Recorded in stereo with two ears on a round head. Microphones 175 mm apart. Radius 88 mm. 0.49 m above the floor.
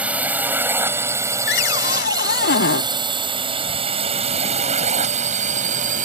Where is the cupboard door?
60° left (ahead or behind).